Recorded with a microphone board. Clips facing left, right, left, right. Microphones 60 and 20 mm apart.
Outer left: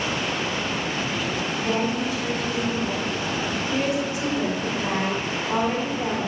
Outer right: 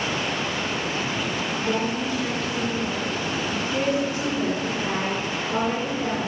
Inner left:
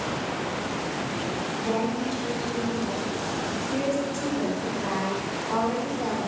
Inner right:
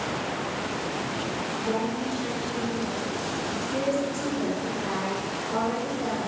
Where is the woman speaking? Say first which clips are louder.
Outer left 1 dB, inner left 2 dB; 15° left (ahead or behind), 2.5 m.